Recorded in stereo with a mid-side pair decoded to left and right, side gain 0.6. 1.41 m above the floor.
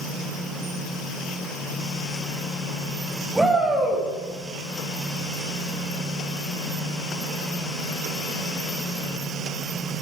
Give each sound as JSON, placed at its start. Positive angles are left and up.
{"t": 3.4, "sound": "a shout", "azimuth_deg": -5, "distance_m": 10.0}